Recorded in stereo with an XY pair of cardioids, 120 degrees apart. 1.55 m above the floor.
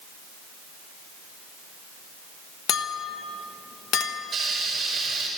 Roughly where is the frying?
Ahead right.